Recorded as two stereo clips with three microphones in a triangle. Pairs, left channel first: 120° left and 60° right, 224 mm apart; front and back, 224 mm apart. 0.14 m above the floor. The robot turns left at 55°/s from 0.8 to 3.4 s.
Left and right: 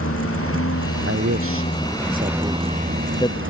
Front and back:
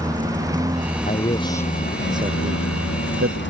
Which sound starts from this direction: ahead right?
A man speaking, at 1.1 s.